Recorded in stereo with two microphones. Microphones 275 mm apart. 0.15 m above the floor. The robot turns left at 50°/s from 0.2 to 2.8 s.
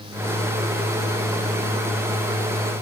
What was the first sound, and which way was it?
Only background noise.